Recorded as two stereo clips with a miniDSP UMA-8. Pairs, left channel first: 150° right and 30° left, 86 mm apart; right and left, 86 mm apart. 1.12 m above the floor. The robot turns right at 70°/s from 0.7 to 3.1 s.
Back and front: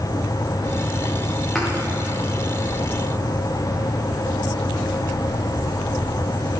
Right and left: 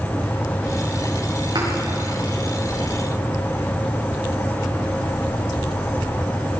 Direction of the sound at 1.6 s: 125° left.